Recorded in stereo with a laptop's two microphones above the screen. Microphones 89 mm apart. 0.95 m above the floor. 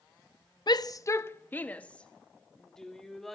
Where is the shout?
50° left (ahead or behind), 0.6 m; by 3.4 s centre (ahead or behind), 2.5 m.